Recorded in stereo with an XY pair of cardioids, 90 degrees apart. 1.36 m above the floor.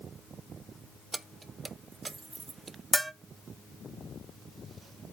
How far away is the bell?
About 1.0 m.